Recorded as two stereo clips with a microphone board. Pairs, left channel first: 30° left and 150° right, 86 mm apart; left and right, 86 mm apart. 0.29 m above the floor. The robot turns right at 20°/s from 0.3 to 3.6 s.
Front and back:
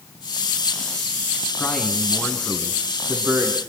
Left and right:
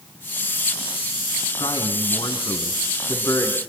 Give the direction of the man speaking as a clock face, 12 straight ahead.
9 o'clock.